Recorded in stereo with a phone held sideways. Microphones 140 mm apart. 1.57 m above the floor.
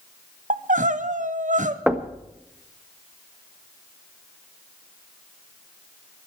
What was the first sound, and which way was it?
Crying, 60° right (ahead or behind).